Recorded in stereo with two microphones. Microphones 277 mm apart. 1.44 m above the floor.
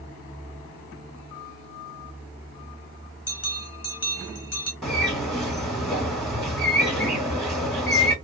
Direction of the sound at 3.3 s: 60° left (ahead or behind).